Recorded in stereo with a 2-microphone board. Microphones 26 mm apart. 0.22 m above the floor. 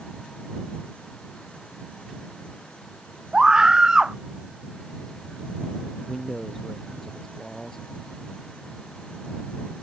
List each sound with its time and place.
3.3 s a scream: 30° right (ahead or behind)
6.1 s a man speaking: 10° left (ahead or behind)